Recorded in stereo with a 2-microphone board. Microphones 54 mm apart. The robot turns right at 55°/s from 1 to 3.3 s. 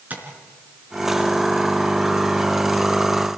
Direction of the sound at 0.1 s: 35° right (ahead or behind).